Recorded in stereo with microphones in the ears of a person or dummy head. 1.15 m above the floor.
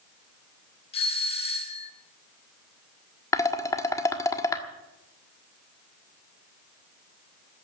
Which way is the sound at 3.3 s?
20° left (ahead or behind).